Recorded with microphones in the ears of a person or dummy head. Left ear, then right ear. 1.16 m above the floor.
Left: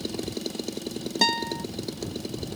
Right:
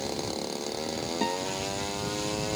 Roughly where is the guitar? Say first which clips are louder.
Left 8 dB; left.